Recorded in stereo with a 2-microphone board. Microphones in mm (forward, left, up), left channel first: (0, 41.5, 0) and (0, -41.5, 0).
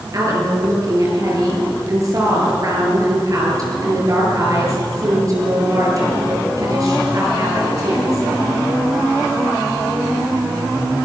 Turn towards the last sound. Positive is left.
turn(degrees=-45)  # may be behind; listen again after turning